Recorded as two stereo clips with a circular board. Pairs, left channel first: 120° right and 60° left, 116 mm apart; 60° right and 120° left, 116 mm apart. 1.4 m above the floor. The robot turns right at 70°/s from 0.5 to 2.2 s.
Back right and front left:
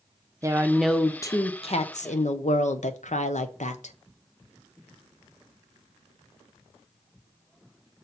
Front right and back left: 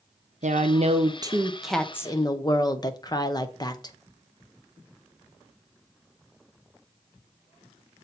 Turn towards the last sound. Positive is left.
turn(degrees=-115)